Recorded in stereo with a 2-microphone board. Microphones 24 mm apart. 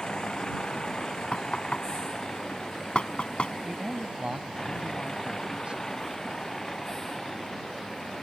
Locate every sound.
0.0 s a vehicle: 25° left (ahead or behind); by 8.2 s 10° left (ahead or behind)
1.3 s knocking: 40° left (ahead or behind)
3.6 s a man speaking: 40° right (ahead or behind)